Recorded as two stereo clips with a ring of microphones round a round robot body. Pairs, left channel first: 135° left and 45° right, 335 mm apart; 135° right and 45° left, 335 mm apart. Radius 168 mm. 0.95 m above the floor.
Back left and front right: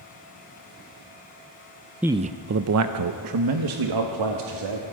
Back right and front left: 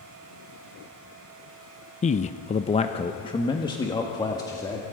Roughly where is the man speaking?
Behind right.